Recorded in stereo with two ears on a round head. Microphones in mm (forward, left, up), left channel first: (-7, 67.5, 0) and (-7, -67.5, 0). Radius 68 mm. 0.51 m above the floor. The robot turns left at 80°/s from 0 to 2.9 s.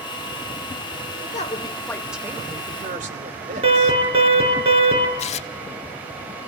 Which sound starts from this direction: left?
Tearing paper, at 5.2 s.